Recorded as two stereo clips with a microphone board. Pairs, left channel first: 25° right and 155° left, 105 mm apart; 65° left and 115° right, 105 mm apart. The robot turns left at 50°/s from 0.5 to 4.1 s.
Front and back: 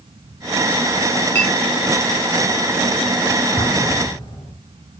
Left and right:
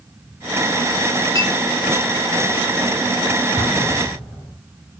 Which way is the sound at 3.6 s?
20° left.